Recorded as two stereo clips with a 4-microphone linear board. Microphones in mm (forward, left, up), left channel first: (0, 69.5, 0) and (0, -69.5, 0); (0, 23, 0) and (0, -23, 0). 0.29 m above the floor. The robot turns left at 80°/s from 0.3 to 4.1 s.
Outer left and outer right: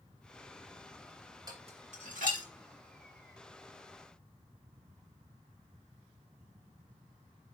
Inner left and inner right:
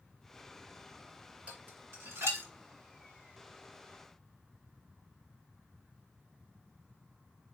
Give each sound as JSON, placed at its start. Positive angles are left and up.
{"t": 1.5, "sound": "dishes clattering", "side_deg": -30, "distance_m": 2.5}